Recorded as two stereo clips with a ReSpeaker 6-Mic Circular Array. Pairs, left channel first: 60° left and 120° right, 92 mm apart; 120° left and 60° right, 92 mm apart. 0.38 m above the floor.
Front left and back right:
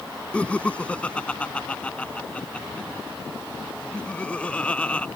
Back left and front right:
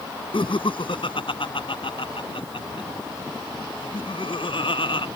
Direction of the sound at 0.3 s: 135° left.